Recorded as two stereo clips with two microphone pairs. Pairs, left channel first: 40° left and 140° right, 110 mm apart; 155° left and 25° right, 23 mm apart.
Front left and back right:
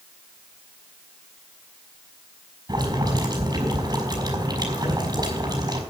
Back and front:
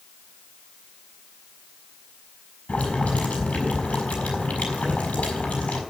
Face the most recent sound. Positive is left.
turn(degrees=175)